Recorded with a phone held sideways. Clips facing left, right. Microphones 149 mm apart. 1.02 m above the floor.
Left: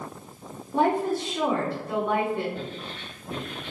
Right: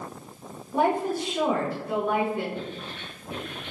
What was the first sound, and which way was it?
A woman speaking, 10° right (ahead or behind).